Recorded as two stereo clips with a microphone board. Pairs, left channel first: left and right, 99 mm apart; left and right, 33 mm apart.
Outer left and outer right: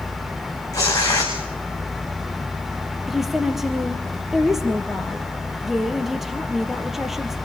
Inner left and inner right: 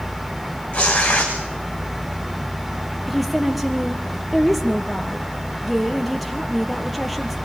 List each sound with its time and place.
0.7 s tearing paper: 35° left (ahead or behind), 5.5 m
3.1 s a woman speaking: centre (ahead or behind), 3.5 m